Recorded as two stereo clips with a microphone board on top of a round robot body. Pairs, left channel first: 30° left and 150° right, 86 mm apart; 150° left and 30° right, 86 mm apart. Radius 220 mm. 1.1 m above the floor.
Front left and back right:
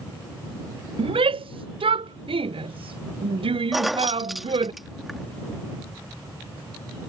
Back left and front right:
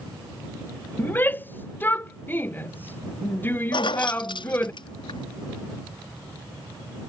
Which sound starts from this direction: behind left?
Keys jangling, at 3.7 s.